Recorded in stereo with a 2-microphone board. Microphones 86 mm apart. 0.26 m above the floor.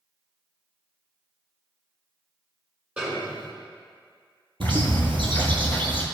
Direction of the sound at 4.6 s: 70° right (ahead or behind).